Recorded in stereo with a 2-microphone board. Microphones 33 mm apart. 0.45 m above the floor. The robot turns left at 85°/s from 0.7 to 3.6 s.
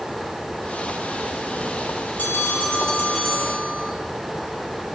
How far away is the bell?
About 5 m.